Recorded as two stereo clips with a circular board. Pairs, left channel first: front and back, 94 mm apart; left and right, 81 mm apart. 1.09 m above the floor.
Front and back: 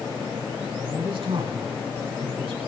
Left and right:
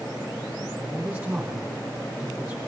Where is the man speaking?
150° right, 6 m.